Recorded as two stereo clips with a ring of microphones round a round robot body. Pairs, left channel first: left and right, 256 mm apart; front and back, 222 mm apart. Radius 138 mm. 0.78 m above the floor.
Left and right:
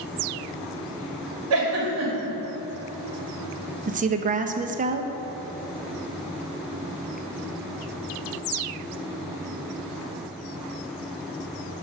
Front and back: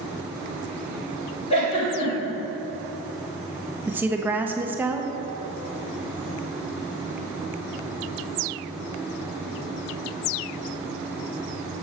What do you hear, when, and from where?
1.5 s a giggle: 65° right, 2 m
3.9 s a woman speaking: 105° right, 0.5 m